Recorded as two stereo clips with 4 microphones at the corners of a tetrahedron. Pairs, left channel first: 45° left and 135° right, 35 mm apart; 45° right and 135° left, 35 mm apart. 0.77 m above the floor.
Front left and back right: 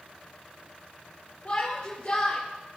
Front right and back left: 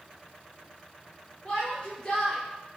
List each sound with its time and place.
1.4 s a shout: 15° left, 3.5 m